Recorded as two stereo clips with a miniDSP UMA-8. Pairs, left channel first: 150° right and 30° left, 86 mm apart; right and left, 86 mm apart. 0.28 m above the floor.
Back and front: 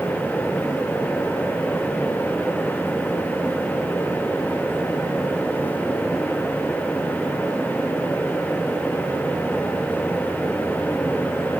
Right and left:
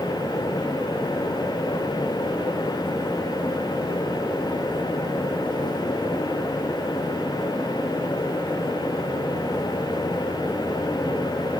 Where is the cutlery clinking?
I don't hear cutlery clinking.